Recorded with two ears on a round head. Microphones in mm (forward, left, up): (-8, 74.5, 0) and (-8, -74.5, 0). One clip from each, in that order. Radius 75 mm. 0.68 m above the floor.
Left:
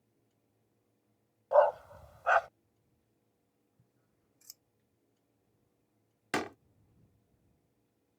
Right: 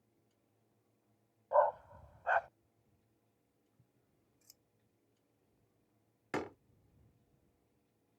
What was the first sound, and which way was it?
A dog barking, 70° left (ahead or behind).